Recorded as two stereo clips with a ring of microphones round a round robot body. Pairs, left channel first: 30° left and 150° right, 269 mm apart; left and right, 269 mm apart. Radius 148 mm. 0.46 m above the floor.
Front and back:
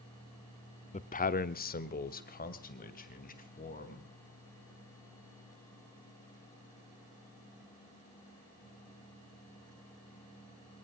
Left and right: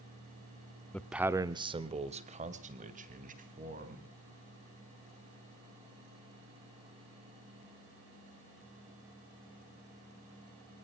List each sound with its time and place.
0.9 s a man speaking: 10° left, 1.0 m; by 4.1 s 30° right, 4.5 m